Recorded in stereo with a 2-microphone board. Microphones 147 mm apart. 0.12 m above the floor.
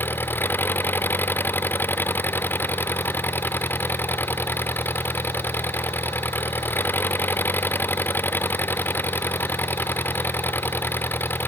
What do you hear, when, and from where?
0.0 s an engine running: 15° left (ahead or behind)